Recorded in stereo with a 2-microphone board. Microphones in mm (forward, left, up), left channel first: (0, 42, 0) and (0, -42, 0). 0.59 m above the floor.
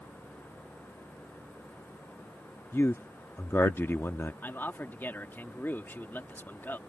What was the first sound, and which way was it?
A man speaking, 30° left (ahead or behind).